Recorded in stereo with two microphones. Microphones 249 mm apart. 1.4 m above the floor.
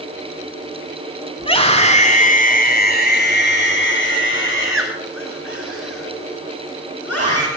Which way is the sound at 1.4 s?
20° left (ahead or behind).